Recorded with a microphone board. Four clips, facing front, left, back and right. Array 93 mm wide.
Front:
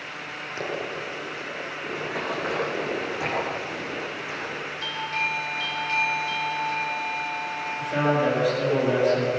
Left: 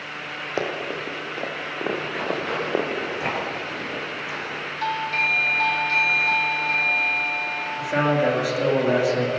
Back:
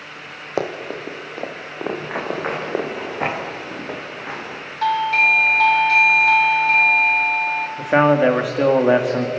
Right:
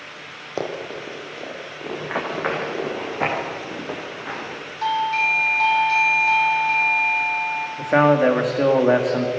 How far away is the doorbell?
About 2.0 m.